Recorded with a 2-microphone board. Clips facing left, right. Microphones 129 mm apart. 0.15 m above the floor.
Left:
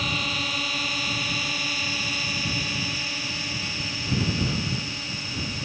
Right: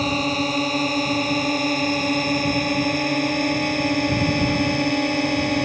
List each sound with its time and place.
0.0 s a drone: 40° right (ahead or behind); by 5.7 s 65° right (ahead or behind)